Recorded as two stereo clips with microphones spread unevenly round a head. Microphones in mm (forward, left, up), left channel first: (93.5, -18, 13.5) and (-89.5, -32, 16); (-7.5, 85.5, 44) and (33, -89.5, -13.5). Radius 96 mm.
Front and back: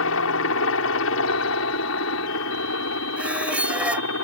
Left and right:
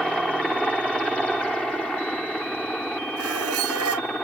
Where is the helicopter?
15° left.